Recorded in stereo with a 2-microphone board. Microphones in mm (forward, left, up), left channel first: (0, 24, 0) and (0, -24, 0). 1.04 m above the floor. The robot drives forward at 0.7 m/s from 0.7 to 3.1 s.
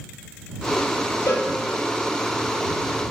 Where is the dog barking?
I don't hear a dog barking.